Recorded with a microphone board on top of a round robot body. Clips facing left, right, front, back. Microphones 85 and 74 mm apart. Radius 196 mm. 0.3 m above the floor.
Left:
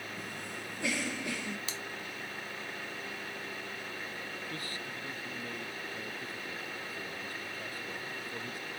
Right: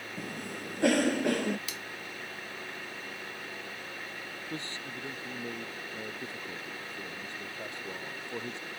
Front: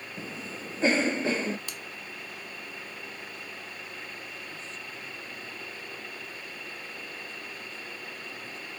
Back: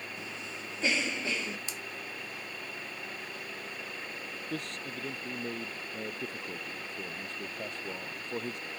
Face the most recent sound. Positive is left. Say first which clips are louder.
# right 1 dB, back 4 dB
turn(degrees=-155)